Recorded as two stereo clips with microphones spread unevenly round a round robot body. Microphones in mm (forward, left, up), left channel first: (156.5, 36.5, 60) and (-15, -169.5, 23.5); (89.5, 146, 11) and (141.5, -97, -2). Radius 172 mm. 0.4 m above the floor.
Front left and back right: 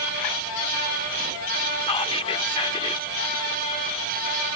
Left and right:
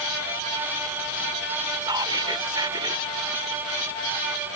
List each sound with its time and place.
1.8 s whispering: 20° right